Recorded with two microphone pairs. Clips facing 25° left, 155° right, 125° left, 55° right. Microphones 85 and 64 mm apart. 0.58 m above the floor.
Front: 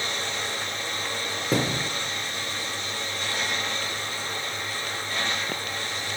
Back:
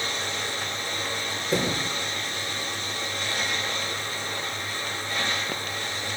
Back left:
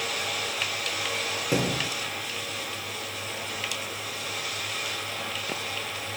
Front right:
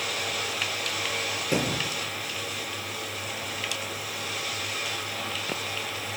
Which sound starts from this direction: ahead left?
A thud, at 1.5 s.